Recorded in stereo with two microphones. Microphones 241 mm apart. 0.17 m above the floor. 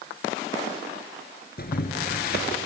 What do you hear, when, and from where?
1.6 s boiling: 45° left (ahead or behind), 1.8 m